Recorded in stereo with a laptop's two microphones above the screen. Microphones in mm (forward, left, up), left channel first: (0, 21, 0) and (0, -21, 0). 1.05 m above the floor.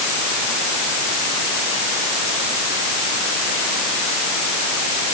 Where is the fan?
I don't hear a fan.